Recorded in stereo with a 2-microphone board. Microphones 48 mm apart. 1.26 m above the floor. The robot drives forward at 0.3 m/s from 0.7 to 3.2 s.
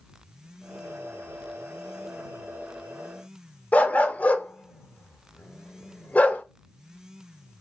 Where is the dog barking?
30° left (ahead or behind), 0.7 m.